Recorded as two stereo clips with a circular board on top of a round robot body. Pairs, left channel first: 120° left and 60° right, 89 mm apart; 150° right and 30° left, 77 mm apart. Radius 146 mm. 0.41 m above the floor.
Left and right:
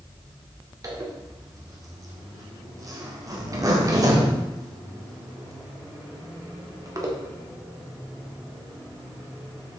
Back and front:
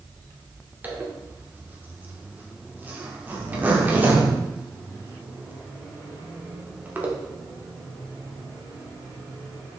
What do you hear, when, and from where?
0.8 s a zipper: 30° right, 1.9 m